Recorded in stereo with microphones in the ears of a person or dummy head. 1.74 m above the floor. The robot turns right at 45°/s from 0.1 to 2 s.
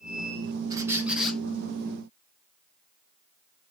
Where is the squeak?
20° right, 1.2 m; by 1.4 s 10° left, 1.2 m.